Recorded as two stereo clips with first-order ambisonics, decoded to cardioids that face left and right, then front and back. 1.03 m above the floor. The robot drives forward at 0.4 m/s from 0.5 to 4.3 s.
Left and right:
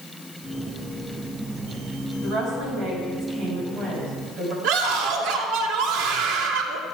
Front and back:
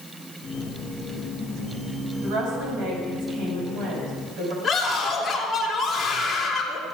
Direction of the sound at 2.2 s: 145° right.